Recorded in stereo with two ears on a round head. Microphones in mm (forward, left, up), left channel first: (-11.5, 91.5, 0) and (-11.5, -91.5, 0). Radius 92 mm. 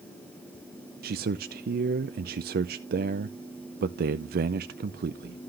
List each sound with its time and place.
1.0 s a man speaking: 45° right (ahead or behind), 0.5 m